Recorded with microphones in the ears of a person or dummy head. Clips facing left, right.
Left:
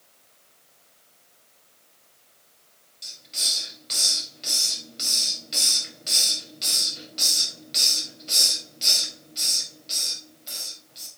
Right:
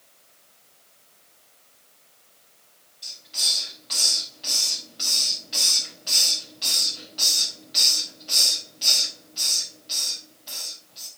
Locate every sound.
3.0 s a hiss: 35° left (ahead or behind), 4 m